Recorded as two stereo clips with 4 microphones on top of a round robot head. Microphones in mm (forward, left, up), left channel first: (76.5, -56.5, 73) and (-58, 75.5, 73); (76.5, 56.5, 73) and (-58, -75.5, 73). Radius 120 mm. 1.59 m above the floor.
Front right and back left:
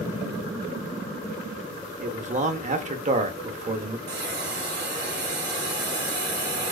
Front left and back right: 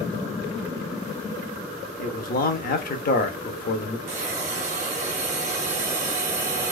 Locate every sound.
2.0 s a man speaking: 85° left, 0.6 m
4.1 s a hiss: 170° left, 0.8 m